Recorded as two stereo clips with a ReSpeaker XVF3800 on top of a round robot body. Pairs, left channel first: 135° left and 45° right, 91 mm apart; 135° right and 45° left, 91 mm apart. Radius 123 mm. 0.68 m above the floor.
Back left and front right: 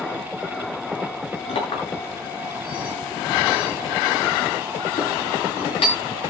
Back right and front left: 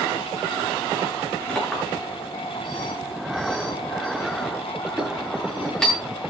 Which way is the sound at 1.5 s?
140° left.